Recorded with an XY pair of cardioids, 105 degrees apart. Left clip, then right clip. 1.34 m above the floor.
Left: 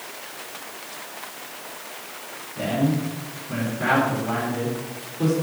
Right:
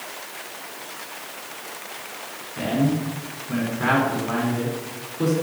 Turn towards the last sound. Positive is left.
turn(degrees=-15)